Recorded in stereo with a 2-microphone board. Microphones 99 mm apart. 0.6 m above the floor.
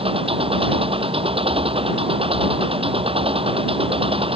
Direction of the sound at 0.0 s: 70° right (ahead or behind).